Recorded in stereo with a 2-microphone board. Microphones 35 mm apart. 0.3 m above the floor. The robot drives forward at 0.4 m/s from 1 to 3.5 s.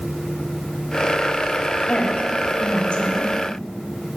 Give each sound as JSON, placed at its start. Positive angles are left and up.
{"t": 1.9, "sound": "a woman speaking", "side_deg": 30, "distance_m": 1.3}